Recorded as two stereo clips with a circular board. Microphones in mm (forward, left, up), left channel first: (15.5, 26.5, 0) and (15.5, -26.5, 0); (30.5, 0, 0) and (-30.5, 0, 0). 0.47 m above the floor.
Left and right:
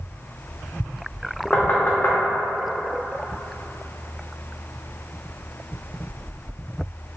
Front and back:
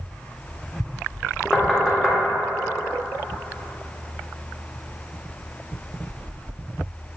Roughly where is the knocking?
Left.